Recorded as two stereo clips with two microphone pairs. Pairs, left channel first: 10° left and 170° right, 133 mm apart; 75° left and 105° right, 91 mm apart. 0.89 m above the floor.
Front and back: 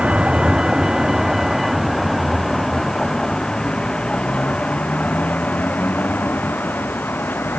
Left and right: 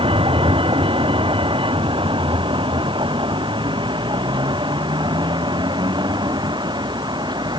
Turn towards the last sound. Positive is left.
turn(degrees=-65)